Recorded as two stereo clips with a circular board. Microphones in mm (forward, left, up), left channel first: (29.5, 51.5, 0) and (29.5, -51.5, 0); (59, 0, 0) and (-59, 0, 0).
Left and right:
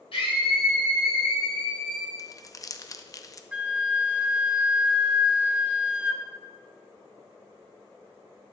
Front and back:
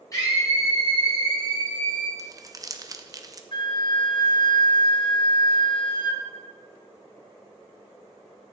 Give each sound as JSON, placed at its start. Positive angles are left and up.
{"t": 0.1, "sound": "a scream", "azimuth_deg": 60, "distance_m": 5.5}
{"t": 2.2, "sound": "crumpling", "azimuth_deg": 130, "distance_m": 0.6}
{"t": 3.5, "sound": "a flute", "azimuth_deg": -15, "distance_m": 0.9}